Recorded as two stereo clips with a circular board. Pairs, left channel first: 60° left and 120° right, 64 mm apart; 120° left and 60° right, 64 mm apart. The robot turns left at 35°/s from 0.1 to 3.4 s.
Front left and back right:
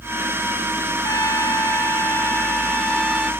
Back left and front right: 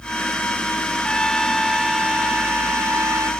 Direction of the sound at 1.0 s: 50° left.